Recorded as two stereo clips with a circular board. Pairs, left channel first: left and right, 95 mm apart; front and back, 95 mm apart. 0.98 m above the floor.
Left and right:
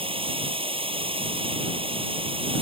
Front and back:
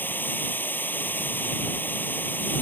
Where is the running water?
70° right.